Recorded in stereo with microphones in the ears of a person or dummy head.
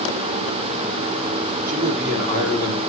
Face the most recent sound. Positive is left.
turn(degrees=-55)  # may be behind; listen again after turning